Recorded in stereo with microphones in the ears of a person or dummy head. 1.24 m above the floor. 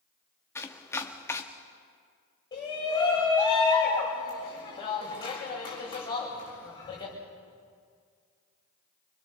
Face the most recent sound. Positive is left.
turn(degrees=25)  # may be behind; listen again after turning